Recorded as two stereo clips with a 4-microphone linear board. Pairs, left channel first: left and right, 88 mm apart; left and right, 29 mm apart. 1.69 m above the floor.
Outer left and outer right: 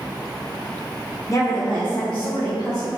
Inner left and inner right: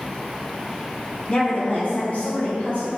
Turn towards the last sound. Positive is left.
turn(degrees=80)